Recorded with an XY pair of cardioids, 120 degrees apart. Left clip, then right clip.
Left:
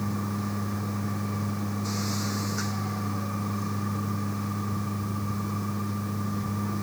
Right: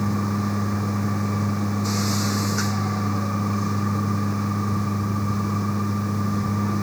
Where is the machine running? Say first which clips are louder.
Right 6 dB; 35° right.